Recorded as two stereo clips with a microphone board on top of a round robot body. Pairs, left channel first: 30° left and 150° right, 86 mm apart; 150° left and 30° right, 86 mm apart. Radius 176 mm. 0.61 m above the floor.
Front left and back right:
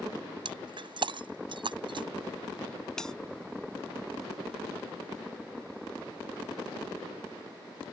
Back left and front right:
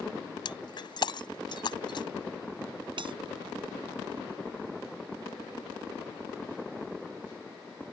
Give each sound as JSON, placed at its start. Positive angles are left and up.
{"t": 0.5, "sound": "breaking glass", "azimuth_deg": -175}
{"t": 3.0, "sound": "a bell", "azimuth_deg": -55}